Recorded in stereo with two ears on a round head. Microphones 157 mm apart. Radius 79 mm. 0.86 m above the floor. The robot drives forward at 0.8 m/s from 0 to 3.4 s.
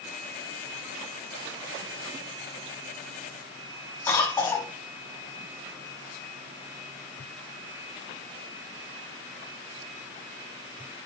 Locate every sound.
4.1 s a cough: 15° left (ahead or behind), 4.5 m